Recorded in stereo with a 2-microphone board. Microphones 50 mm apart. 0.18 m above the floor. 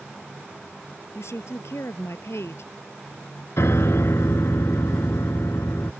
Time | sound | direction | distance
1.1 | a woman speaking | 60° left (ahead or behind) | ?
3.6 | a piano | 60° left (ahead or behind) | ?